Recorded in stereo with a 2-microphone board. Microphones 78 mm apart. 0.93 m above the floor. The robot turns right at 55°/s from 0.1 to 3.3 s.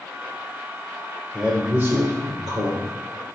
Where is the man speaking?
170° right, 4 m; by 2.9 s 85° right, 4 m.